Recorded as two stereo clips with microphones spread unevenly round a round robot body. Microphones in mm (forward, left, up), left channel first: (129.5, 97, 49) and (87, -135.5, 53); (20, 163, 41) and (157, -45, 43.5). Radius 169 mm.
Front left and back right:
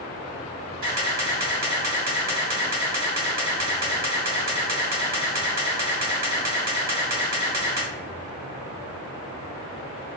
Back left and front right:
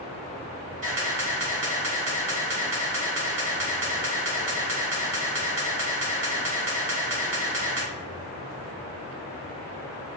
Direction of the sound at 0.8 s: 95° right.